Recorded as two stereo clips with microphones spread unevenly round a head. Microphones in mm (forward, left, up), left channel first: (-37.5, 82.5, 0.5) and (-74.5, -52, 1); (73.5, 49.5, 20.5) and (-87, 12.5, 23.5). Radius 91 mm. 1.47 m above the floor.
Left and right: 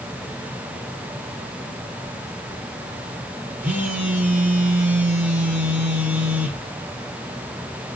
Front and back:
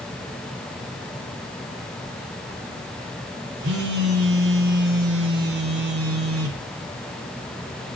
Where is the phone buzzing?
175° left, 1.3 m.